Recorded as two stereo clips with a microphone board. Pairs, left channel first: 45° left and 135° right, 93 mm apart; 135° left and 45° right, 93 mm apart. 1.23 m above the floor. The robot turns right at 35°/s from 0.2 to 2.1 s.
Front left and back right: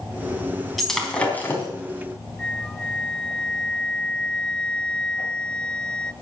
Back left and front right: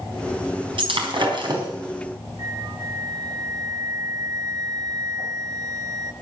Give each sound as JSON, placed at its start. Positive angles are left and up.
{"t": 0.8, "sound": "breaking glass", "azimuth_deg": -45, "distance_m": 4.0}
{"t": 2.4, "sound": "a flute", "azimuth_deg": -35, "distance_m": 0.9}